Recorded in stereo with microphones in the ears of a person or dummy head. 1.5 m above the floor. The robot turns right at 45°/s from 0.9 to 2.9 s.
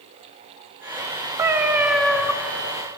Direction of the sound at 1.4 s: 15° right (ahead or behind).